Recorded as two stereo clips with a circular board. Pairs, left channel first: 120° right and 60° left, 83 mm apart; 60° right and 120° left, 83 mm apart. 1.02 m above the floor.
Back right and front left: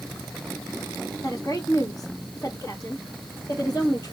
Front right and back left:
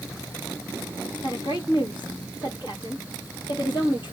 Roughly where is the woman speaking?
Right.